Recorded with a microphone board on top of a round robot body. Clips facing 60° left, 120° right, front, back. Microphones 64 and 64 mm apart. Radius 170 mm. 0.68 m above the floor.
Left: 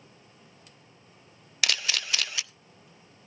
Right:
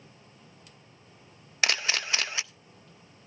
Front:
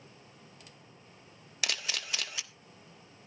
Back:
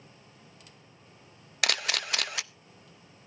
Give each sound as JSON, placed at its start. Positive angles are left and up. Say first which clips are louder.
{"t": 1.6, "sound": "a camera shutter", "louder": "right 2 dB, back 6 dB", "azimuth_deg": 180, "distance_m": 0.6}